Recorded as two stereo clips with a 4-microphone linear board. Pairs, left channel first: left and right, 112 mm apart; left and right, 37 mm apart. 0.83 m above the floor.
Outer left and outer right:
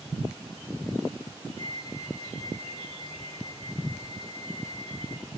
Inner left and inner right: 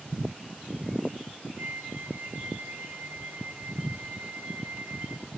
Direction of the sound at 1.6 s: 70° right (ahead or behind).